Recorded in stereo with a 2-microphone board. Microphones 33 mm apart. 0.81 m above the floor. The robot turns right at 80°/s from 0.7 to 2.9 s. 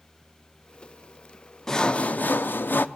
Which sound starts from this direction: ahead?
Sawing, at 1.7 s.